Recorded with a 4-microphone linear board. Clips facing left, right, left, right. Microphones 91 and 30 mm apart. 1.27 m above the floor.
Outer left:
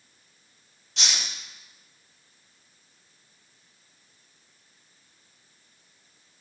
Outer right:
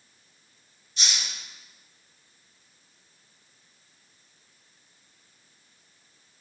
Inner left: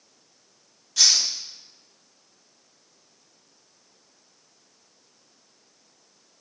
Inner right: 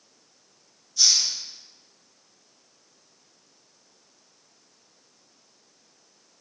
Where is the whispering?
No whispering in this recording.